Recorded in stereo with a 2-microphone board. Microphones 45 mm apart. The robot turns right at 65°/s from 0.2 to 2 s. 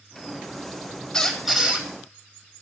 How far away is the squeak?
About 1.4 m.